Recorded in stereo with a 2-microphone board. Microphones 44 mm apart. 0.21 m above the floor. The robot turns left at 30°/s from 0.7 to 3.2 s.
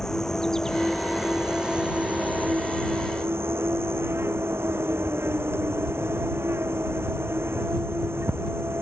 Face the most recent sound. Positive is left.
turn(degrees=-65)